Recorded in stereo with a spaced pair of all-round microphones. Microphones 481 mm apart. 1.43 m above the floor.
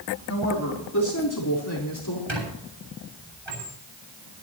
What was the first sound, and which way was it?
A woman speaking, 35° left (ahead or behind).